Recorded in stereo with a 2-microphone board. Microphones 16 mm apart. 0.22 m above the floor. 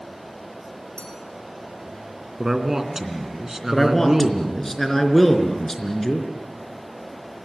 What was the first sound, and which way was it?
A clink, 85° left.